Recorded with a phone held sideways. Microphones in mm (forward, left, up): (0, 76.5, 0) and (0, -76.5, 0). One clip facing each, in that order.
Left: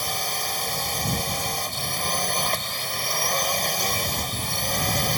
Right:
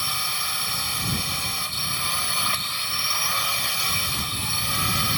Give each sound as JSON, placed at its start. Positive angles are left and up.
{"t": 0.0, "sound": "a drone", "side_deg": 45}